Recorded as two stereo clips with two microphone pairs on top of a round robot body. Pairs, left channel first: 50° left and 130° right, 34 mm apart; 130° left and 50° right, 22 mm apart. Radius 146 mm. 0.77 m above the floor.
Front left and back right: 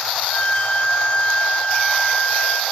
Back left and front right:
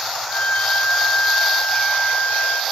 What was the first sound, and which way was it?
A violin, 110° left.